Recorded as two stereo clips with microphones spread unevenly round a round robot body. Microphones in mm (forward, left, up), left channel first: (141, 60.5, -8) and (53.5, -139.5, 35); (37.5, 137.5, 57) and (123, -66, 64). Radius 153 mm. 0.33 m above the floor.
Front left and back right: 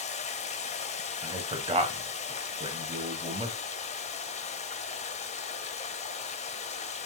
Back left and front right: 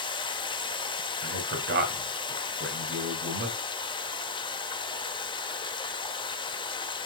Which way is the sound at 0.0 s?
60° left.